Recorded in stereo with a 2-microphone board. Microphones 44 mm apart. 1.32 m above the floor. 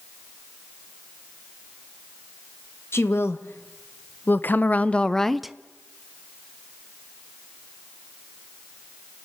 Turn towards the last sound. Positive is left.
turn(degrees=-10)  # may be behind; listen again after turning